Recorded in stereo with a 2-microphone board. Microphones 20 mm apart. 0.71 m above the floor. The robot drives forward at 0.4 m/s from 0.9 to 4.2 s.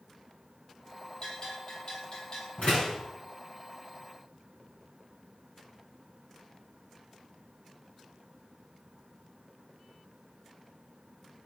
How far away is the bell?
About 8 m.